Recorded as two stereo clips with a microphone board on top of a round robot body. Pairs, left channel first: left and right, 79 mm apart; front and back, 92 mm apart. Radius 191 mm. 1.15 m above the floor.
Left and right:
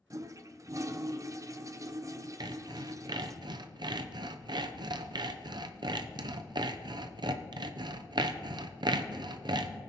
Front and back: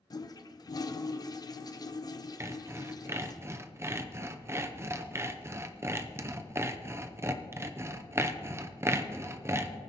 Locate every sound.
0.1 s a toilet flushing: 45° right, 0.8 m
2.4 s sawing: 120° right, 0.6 m